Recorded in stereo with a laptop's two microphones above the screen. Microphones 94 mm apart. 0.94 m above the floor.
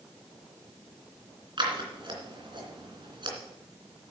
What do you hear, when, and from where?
1.6 s scissors: 55° right (ahead or behind), 2.5 m